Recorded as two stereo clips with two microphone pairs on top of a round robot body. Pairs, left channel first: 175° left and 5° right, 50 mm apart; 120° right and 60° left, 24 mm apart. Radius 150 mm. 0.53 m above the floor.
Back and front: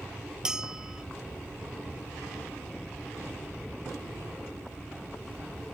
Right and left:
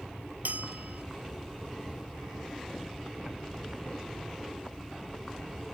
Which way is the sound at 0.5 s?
75° left.